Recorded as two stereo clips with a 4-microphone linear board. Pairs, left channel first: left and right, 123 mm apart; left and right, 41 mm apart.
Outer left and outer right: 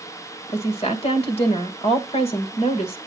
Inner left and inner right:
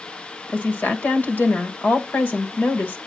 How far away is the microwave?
I don't hear a microwave.